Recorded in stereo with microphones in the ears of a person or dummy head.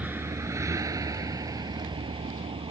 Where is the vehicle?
10° right (ahead or behind); by 2.7 s 30° right (ahead or behind).